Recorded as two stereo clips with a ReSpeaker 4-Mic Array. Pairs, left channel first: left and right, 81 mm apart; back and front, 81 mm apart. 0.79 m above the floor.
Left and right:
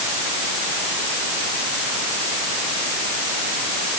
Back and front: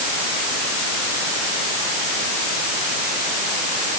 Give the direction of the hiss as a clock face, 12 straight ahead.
No hiss in this recording.